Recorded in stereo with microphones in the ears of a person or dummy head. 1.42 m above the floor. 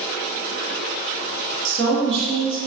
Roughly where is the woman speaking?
Right.